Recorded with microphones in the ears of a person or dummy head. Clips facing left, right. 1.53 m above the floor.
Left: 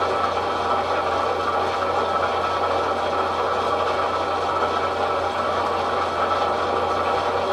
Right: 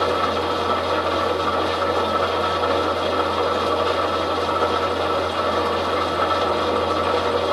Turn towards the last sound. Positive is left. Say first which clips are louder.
# right 2 dB
turn(degrees=-40)  # may be behind; listen again after turning